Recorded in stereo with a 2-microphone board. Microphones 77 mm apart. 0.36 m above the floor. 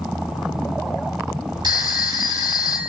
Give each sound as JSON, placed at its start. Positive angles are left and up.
{"t": 1.6, "sound": "a phone ringing", "side_deg": -65, "distance_m": 1.2}